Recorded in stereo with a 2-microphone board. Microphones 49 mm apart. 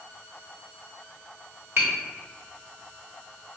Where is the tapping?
55° right (ahead or behind), 1.1 m.